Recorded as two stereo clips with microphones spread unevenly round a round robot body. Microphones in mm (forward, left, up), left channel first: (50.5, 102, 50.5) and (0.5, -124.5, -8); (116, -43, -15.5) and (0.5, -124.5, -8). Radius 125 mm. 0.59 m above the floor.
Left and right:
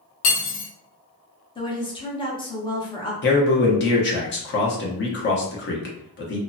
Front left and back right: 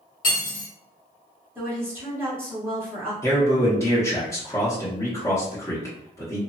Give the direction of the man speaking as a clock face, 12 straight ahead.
9 o'clock.